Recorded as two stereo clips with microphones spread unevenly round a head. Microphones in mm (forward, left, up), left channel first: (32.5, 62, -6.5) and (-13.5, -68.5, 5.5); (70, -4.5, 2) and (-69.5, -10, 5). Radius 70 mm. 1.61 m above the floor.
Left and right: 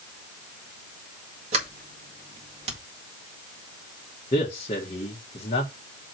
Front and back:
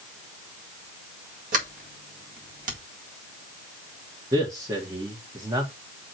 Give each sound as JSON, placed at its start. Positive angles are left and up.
{"t": 1.5, "sound": "a sliding door", "azimuth_deg": -155, "distance_m": 2.0}
{"t": 4.3, "sound": "a man speaking", "azimuth_deg": 120, "distance_m": 1.7}